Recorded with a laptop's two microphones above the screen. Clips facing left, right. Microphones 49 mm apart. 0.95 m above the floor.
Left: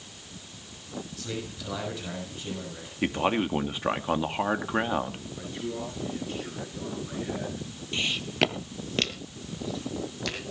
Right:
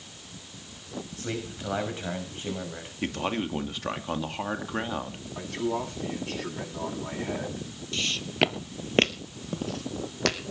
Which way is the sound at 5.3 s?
80° right.